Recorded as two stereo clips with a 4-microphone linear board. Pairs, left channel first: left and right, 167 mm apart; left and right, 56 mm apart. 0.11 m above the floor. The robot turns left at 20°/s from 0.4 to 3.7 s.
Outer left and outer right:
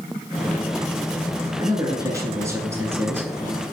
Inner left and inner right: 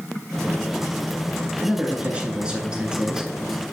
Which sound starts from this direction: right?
A man speaking, at 1.6 s.